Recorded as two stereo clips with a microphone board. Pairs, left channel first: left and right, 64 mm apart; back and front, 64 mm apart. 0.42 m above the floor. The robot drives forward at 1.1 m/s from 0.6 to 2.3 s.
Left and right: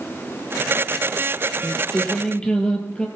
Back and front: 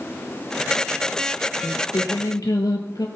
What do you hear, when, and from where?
1.6 s singing: 155° left, 1.0 m; by 3.1 s 165° left, 1.7 m